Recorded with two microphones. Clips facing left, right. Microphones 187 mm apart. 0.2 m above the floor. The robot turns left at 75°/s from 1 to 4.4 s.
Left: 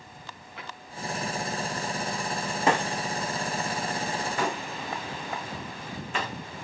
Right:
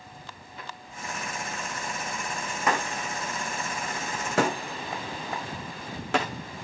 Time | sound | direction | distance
0.6 | a drawer | 75° left (ahead or behind) | 9.5 m
2.7 | breaking glass | 30° left (ahead or behind) | 4 m